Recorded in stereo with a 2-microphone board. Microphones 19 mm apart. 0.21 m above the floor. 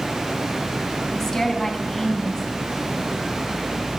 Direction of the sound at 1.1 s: 20° left (ahead or behind).